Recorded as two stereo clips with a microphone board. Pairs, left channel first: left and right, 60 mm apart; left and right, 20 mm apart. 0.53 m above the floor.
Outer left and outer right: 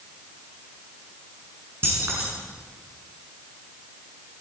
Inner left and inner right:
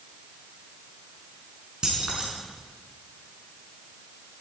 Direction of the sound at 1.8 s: 40° right (ahead or behind).